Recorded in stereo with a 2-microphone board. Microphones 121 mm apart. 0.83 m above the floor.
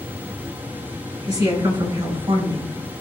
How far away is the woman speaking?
About 3.5 m.